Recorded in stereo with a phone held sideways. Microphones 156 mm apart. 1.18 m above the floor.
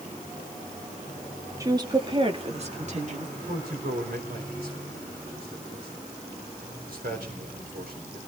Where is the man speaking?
85° right, 5 m.